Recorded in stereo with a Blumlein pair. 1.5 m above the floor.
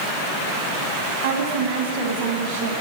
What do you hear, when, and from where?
1.2 s a woman speaking: 65° right, 2.5 m